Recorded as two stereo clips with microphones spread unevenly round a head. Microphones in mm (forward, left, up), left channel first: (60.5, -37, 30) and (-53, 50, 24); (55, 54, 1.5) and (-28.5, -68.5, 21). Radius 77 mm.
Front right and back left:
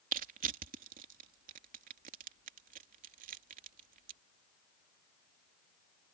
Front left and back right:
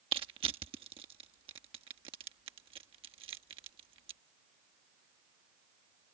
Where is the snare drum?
I don't hear a snare drum.